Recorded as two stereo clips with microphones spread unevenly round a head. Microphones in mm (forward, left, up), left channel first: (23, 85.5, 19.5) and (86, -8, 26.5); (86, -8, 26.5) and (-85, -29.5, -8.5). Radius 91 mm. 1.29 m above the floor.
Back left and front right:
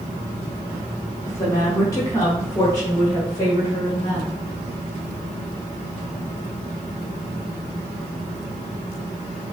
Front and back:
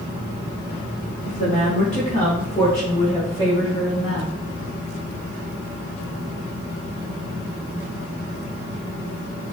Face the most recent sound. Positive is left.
turn(degrees=70)